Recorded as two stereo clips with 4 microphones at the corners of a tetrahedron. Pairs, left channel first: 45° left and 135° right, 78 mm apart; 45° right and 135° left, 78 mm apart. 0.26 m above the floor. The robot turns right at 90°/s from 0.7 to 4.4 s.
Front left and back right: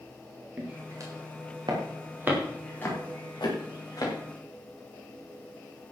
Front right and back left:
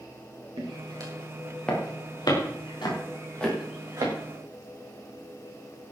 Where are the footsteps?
150° left, 6 m; by 4.1 s 95° left, 9 m.